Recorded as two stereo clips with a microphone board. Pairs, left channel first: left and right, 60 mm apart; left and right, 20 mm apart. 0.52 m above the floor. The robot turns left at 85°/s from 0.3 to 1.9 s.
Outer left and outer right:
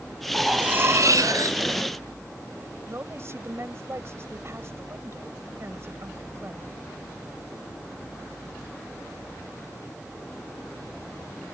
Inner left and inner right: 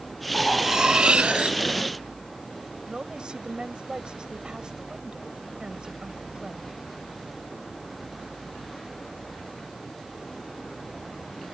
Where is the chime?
I don't hear a chime.